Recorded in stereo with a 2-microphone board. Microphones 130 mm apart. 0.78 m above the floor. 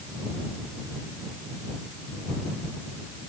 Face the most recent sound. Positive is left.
No sound to turn to.